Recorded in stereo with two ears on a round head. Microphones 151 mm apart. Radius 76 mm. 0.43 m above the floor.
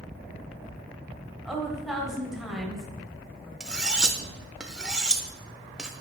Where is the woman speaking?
Centre (ahead or behind), 1.8 m.